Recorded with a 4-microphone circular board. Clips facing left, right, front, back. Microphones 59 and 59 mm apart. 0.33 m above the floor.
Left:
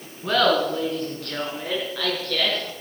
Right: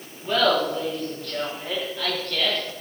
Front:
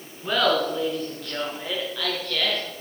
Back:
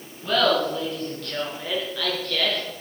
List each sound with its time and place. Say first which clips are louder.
0.2 s laughter: left 1 dB, back 1 dB; 75° left, 4.5 m; by 2.6 s 90° left, 5 m